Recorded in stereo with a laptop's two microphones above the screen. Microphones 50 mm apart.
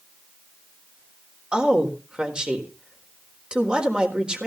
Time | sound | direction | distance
1.5 | a woman speaking | 20° right (ahead or behind) | 4 m